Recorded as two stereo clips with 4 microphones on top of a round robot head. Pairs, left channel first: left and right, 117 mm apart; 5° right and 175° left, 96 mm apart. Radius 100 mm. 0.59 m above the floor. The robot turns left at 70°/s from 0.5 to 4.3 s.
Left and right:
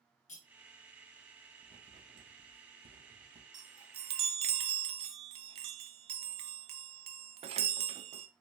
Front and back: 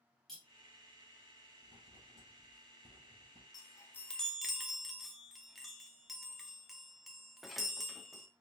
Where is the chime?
45° right, 0.6 m; by 8.3 s 95° right, 0.6 m.